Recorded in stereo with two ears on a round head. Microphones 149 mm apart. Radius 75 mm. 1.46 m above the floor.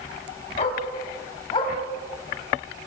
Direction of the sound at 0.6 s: 40° left (ahead or behind).